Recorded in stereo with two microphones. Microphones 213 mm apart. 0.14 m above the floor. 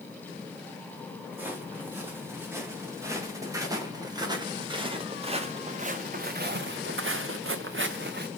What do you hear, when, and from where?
1.3 s footsteps: 10° right (ahead or behind), 3.5 m; by 8.3 s 55° right (ahead or behind), 1.0 m